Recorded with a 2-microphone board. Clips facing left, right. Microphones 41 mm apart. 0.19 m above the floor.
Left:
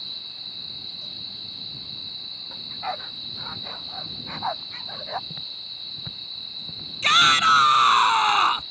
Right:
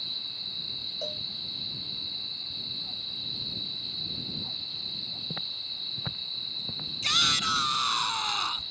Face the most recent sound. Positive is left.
turn(degrees=50)  # may be behind; listen again after turning